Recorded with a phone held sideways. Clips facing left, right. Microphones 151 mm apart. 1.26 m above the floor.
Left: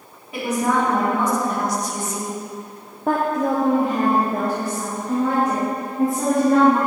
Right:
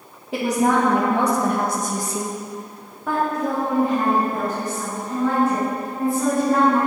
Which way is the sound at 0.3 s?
75° right (ahead or behind).